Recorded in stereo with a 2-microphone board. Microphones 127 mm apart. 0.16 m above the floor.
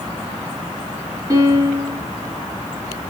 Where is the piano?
30° right (ahead or behind), 3 m.